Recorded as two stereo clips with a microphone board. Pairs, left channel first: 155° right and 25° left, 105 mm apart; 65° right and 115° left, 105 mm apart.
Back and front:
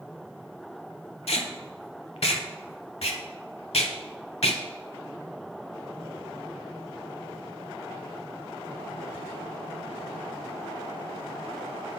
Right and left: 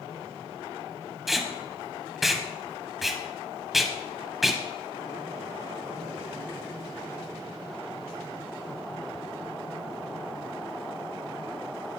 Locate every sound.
1.3 s tape being pulled: 160° right, 0.7 m